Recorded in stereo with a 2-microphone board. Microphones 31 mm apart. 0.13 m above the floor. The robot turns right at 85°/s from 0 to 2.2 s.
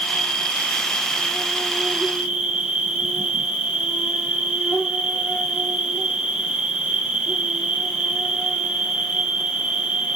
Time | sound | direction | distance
0.0 | an insect | 35° left | 3 m